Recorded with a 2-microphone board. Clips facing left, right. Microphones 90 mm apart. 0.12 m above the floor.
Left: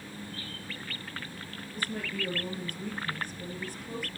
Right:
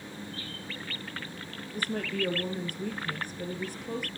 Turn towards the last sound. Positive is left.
turn(degrees=-55)  # may be behind; listen again after turning